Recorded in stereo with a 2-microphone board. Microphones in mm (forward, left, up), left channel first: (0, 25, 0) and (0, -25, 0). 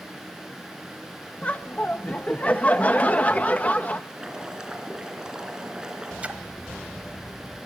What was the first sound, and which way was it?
Laughter, 30° left (ahead or behind).